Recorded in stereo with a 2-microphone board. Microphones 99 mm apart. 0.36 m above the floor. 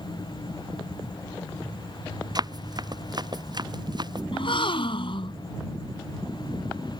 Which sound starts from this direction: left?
A gasp, at 4.3 s.